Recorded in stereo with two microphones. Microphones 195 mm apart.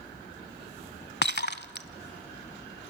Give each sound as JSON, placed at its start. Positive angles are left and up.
{"t": 1.2, "sound": "breaking glass", "side_deg": 60, "distance_m": 0.8}